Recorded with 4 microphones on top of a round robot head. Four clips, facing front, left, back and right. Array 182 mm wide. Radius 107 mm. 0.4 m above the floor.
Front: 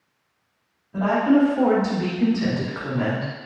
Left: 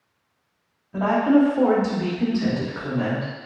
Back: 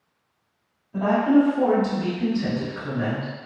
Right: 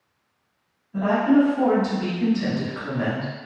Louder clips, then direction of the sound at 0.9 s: Left 1 dB, even; 85° left.